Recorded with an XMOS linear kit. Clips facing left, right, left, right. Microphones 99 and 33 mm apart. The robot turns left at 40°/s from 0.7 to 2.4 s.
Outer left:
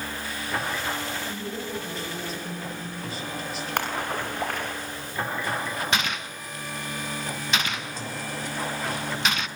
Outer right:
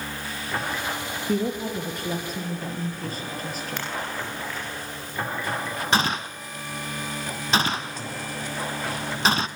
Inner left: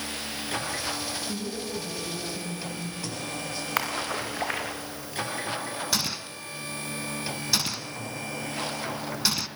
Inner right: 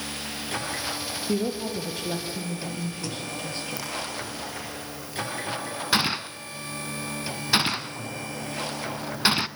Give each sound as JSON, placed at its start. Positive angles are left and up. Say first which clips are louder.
{"t": 1.3, "sound": "a woman speaking", "louder": "outer right 7 dB, inner right 6 dB", "azimuth_deg": -90, "distance_m": 4.5}
{"t": 3.8, "sound": "a splash", "louder": "outer left 6 dB, inner left 4 dB", "side_deg": 60, "distance_m": 4.5}
{"t": 5.9, "sound": "a gunshot", "louder": "outer right 4 dB, inner right 10 dB", "side_deg": -35, "distance_m": 0.8}